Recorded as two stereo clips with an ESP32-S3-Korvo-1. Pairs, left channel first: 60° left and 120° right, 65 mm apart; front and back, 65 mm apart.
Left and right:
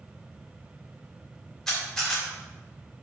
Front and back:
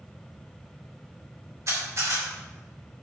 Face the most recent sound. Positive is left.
turn(degrees=140)